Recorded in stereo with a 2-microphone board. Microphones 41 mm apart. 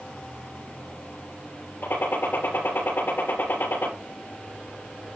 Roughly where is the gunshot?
Left.